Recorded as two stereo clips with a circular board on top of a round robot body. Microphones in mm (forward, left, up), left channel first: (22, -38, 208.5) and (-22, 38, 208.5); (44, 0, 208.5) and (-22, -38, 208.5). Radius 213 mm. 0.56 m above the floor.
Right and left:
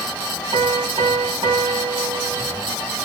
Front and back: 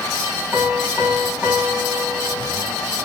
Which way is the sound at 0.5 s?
140° left.